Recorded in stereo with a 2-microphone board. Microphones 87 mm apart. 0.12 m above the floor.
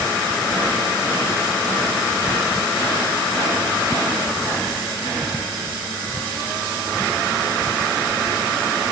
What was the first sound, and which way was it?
Only background noise.